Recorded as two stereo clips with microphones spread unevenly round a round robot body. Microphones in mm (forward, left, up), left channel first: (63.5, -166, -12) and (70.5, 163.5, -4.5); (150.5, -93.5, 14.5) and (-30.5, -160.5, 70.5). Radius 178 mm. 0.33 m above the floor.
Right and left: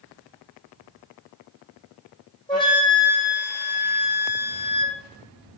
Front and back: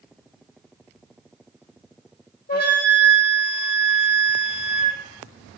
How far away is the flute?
About 6.5 m.